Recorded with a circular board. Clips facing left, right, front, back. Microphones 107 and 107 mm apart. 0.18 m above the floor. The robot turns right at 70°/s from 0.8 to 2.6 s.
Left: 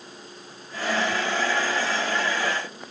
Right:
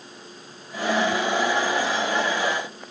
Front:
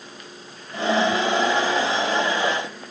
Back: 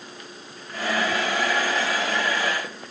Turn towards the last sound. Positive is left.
No sound to turn to.